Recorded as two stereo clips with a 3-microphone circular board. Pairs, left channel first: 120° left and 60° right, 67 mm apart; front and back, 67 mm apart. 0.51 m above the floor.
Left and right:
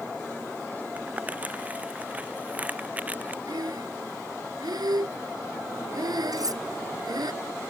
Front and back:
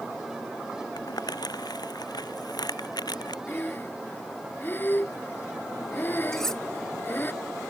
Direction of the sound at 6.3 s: 85° right.